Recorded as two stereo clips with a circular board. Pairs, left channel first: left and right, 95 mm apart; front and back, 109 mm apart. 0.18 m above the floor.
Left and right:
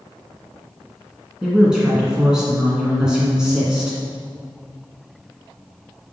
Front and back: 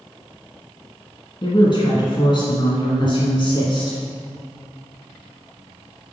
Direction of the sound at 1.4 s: 10° right.